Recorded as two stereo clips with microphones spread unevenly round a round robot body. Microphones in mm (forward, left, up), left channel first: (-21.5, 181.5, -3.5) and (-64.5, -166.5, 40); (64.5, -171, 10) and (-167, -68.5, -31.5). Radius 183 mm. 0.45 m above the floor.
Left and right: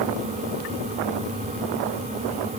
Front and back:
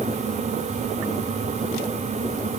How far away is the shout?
I don't hear a shout.